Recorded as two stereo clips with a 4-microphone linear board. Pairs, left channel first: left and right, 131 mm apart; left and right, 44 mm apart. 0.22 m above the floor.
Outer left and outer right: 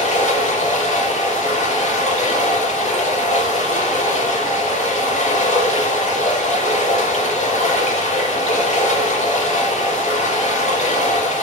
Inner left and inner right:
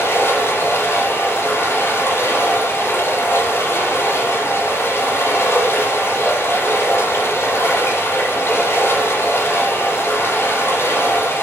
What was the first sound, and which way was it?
Running water, 60° left (ahead or behind).